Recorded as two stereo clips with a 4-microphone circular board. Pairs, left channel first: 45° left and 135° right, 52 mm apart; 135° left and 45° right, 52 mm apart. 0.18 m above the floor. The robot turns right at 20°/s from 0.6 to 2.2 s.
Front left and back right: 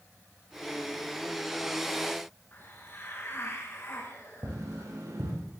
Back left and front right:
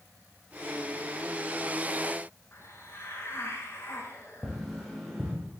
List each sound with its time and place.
2.5 s a hiss: 95° left, 7.5 m
4.4 s tapping: 135° right, 8 m